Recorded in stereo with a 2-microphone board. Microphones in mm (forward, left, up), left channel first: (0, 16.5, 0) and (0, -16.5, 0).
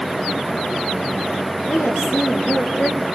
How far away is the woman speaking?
About 6 m.